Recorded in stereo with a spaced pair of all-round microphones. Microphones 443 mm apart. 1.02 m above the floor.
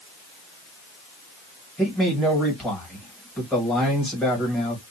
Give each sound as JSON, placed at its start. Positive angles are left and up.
{"t": 1.8, "sound": "a man speaking", "side_deg": 0, "distance_m": 1.6}